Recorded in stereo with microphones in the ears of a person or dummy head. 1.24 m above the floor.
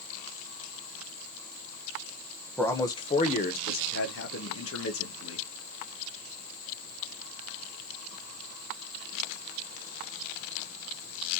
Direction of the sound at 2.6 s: 5° left (ahead or behind).